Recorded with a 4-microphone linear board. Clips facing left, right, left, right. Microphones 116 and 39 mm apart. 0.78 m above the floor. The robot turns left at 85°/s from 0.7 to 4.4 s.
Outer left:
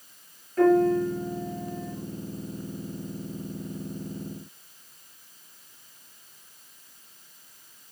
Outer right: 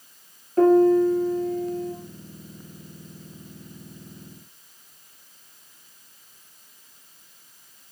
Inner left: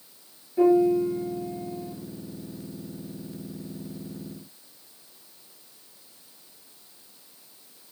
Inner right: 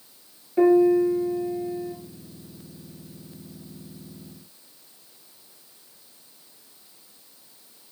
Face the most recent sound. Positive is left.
turn(degrees=10)